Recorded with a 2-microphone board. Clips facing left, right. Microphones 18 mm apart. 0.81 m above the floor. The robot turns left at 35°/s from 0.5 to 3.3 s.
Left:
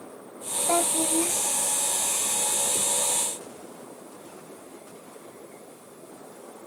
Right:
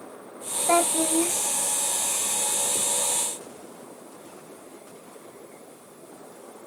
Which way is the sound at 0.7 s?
45° right (ahead or behind).